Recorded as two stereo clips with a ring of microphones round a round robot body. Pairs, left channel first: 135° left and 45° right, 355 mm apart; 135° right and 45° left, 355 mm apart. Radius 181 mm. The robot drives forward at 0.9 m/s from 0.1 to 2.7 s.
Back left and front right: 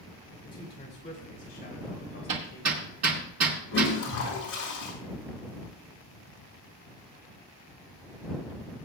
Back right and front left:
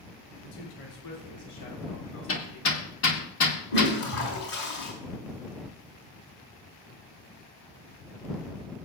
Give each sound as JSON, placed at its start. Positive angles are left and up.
{"t": 0.4, "sound": "a man speaking", "azimuth_deg": -150, "distance_m": 2.5}
{"t": 2.3, "sound": "hammering", "azimuth_deg": -80, "distance_m": 1.8}
{"t": 3.7, "sound": "a toilet flushing", "azimuth_deg": -170, "distance_m": 5.0}